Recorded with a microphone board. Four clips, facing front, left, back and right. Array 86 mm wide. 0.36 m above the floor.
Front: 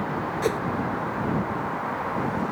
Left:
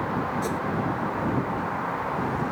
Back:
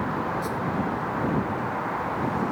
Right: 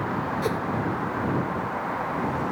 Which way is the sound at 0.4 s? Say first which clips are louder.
Right 2 dB, front 5 dB; 20° right.